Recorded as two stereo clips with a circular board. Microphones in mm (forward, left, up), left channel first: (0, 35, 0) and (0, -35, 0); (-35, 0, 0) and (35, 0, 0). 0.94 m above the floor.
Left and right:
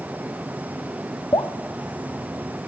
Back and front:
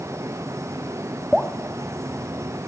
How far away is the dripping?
About 0.8 m.